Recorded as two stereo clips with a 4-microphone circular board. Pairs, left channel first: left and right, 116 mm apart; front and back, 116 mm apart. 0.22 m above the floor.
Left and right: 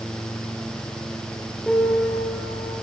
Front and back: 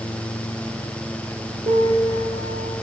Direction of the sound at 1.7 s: Straight behind.